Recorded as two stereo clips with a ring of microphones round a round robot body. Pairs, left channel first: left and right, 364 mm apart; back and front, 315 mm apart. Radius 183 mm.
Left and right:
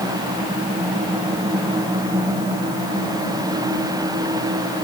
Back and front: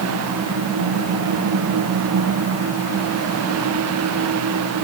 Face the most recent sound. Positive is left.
No sound to turn to.